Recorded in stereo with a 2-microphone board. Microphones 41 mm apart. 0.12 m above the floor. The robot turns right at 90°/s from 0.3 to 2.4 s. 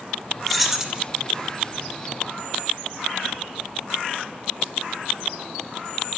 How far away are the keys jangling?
About 0.9 m.